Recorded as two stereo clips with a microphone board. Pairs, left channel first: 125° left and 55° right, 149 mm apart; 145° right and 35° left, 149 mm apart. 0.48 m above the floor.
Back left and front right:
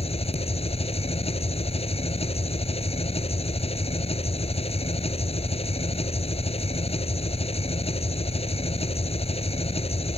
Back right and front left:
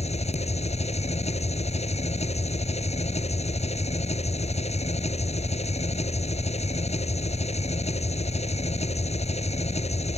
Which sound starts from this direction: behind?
An engine running, at 0.0 s.